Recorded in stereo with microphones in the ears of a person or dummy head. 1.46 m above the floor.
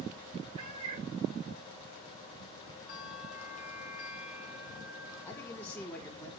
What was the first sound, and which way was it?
A cat meowing, 45° right (ahead or behind).